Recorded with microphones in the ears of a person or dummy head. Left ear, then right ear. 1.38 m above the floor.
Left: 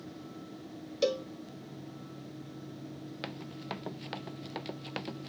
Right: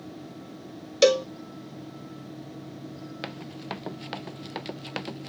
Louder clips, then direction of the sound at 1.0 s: Right 11 dB; 50° right (ahead or behind).